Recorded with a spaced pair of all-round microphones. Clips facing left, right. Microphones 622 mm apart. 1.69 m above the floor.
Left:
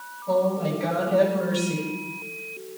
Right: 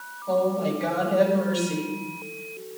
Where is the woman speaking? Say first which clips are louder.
Even; 35° left (ahead or behind), 10 m.